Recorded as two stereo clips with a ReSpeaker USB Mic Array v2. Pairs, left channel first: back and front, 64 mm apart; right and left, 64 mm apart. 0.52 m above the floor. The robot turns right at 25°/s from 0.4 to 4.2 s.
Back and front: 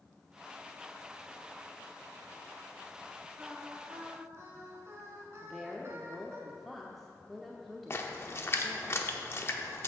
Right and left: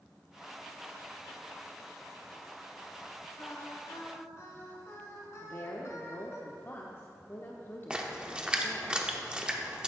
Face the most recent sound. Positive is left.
turn(degrees=160)